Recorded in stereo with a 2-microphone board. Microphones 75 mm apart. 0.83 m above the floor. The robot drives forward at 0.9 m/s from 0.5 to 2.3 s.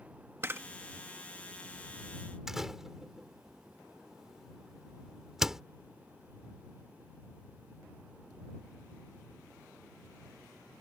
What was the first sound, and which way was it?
A camera shutter, 35° right (ahead or behind).